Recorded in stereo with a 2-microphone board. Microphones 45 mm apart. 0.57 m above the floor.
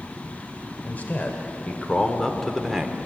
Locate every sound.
0.8 s a man speaking: 40° left (ahead or behind), 2 m; by 3.1 s 10° right (ahead or behind), 1.4 m